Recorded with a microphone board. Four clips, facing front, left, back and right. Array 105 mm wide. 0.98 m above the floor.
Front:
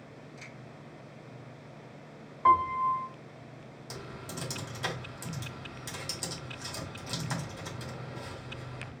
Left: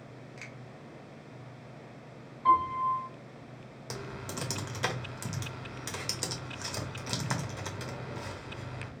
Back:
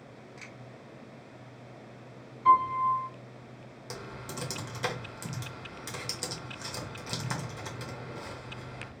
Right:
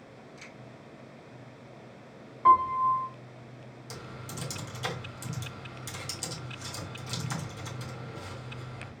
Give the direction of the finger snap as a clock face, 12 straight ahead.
8 o'clock.